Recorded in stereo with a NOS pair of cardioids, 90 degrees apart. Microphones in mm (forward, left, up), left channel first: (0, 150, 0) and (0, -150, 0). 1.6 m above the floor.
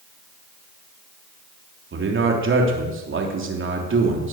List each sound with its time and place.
1.9 s a man speaking: 40° right, 3 m